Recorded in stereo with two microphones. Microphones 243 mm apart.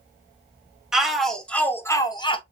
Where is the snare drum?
I don't hear a snare drum.